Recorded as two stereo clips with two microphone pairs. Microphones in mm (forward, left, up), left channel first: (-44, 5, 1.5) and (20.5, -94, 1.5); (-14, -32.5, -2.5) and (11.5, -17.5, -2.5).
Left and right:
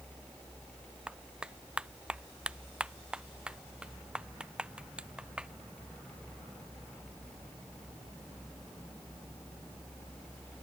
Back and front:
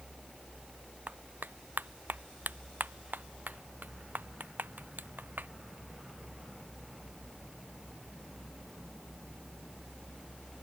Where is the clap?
25° left.